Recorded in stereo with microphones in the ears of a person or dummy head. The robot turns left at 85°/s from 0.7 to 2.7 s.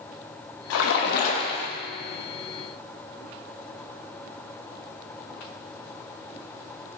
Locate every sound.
0.7 s a splash: 95° left, 0.5 m; by 1.7 s 5° left, 0.5 m